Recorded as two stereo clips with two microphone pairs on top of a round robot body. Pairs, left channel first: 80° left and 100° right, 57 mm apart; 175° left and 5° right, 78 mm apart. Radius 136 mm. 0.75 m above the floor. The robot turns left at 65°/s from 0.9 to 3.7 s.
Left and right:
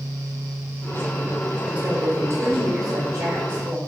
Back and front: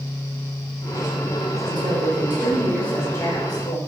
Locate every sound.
1.7 s a woman speaking: 25° right, 4 m; by 3.8 s 155° right, 4 m